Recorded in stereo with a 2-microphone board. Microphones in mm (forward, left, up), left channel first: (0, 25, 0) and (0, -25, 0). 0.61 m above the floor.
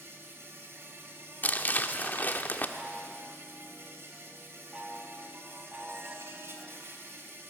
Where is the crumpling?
35° left (ahead or behind), 1.2 m.